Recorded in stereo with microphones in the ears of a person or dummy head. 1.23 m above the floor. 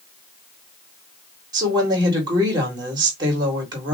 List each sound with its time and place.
1.5 s a woman speaking: 25° right (ahead or behind), 2 m